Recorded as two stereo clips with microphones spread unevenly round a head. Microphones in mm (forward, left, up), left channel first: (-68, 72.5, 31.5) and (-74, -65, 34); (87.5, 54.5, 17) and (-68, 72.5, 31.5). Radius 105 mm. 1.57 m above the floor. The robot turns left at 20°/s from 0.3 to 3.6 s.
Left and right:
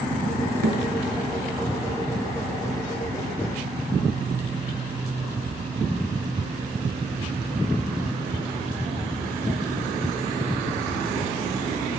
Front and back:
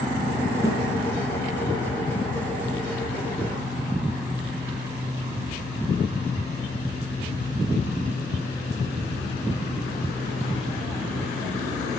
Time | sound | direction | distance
0.6 | a thud | 110° right | 9.5 m